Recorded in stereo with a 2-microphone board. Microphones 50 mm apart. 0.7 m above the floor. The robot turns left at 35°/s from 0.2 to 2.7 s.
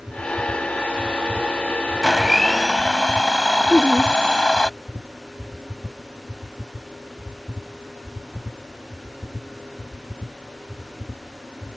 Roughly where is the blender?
Centre.